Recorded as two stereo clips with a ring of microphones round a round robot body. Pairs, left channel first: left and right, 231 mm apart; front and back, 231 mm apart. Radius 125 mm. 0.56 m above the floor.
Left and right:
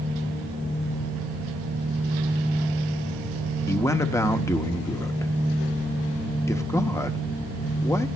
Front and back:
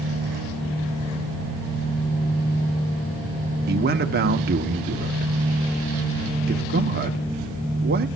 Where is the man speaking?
160° left, 0.9 m.